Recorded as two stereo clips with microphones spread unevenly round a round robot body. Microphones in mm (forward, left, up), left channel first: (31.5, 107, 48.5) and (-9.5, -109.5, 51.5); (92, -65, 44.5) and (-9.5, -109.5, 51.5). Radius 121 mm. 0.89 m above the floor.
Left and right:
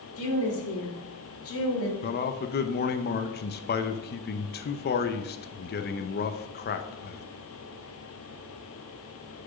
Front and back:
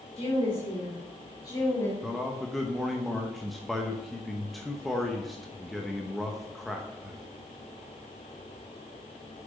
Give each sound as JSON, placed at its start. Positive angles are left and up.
{"t": 0.2, "sound": "a woman speaking", "azimuth_deg": 65, "distance_m": 3.0}
{"t": 2.0, "sound": "a man speaking", "azimuth_deg": 110, "distance_m": 0.7}